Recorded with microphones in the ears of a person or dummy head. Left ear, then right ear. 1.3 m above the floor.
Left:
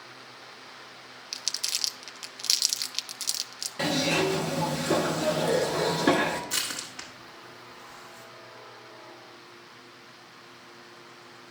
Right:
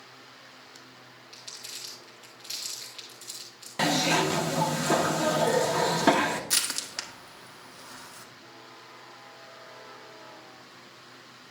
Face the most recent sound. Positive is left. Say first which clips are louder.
# right 2 dB
turn(degrees=-65)  # may be behind; listen again after turning